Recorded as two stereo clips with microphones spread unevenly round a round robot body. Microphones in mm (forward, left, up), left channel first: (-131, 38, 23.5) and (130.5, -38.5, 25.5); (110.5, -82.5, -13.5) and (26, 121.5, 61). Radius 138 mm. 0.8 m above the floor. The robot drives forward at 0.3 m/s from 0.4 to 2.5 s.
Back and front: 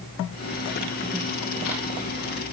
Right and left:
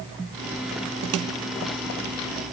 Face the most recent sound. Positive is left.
No sound to turn to.